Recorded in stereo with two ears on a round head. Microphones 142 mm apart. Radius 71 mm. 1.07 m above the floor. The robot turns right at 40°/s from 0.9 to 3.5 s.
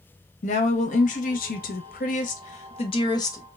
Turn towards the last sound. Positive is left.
turn(degrees=160)